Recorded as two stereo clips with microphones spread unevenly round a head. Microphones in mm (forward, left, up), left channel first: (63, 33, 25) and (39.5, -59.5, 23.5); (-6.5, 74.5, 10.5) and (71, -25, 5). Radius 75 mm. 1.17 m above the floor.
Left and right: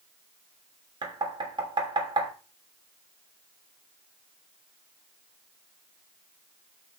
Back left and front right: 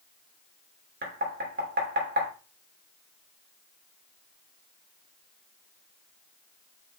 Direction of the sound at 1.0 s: 65° right.